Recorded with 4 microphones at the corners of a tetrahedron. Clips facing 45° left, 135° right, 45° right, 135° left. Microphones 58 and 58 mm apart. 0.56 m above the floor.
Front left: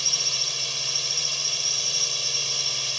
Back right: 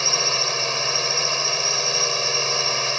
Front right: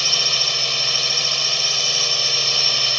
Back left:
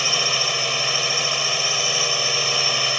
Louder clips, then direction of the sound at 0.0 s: Back right 10 dB, back left 2 dB; 155° right.